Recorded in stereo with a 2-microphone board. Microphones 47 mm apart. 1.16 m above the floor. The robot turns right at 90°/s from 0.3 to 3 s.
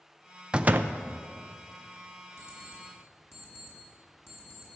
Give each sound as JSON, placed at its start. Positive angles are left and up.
{"t": 0.5, "sound": "a door slam", "azimuth_deg": -160, "distance_m": 0.5}
{"t": 2.4, "sound": "an alarm clock", "side_deg": 55, "distance_m": 5.0}